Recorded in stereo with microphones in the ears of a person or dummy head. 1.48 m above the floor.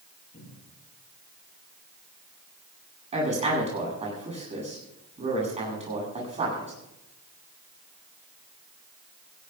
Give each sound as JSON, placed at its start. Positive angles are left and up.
{"t": 0.3, "sound": "a cupboard door", "side_deg": 30, "distance_m": 9.0}
{"t": 3.1, "sound": "a woman speaking", "side_deg": -35, "distance_m": 8.5}